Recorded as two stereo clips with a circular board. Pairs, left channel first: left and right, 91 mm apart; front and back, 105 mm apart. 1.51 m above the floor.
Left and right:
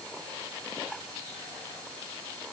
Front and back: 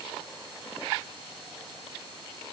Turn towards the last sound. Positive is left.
No sound to turn to.